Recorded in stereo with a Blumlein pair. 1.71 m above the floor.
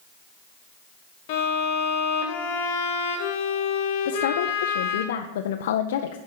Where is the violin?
50° left, 1.4 m.